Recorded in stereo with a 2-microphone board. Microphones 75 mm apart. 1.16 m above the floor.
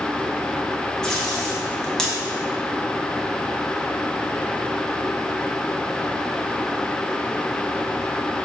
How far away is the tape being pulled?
About 0.8 m.